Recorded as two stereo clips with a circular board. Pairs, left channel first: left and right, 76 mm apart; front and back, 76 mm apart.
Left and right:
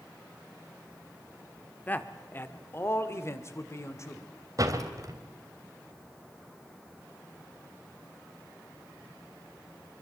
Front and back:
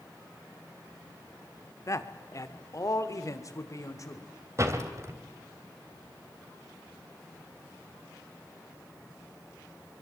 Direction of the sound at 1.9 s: 30° left.